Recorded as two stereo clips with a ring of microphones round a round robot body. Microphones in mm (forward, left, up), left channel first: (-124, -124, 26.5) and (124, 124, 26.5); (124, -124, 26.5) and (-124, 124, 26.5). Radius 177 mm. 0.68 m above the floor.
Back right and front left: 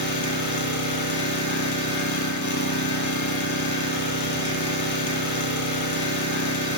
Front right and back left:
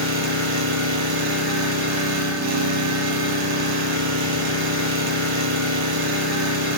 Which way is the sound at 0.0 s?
Straight behind.